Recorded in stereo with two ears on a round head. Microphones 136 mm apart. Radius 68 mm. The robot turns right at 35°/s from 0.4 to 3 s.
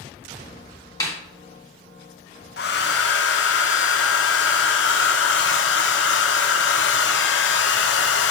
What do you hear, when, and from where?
1.0 s a snare drum: 20° left (ahead or behind), 2.5 m
2.6 s a hair dryer: 65° left (ahead or behind), 0.9 m; by 8.3 s 80° left, 0.9 m